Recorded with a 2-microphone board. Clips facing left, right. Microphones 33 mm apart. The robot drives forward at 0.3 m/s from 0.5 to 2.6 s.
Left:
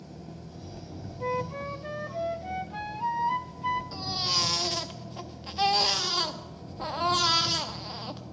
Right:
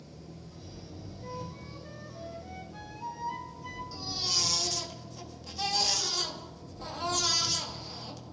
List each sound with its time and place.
0.0 s an engine running: 70° left (ahead or behind), 2.5 m; by 8.3 s 75° left (ahead or behind), 2.5 m
1.2 s a flute: 70° left (ahead or behind), 0.5 m; by 3.8 s 40° left (ahead or behind), 0.7 m
3.9 s a baby crying: 45° left (ahead or behind), 1.0 m